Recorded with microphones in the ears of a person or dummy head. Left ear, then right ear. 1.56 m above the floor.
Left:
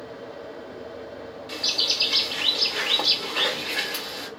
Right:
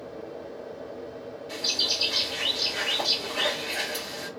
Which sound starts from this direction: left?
A bird, at 1.5 s.